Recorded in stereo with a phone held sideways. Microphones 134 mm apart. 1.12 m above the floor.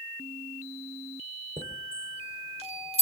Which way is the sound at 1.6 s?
55° right (ahead or behind).